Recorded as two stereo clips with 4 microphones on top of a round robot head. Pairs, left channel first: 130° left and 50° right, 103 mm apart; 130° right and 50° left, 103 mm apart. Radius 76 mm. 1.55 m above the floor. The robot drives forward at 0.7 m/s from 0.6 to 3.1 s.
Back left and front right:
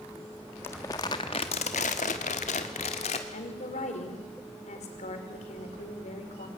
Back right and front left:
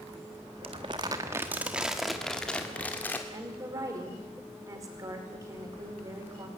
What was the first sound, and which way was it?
Crumpling, 70° left.